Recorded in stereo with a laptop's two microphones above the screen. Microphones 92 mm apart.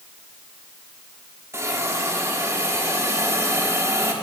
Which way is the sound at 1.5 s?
30° right (ahead or behind).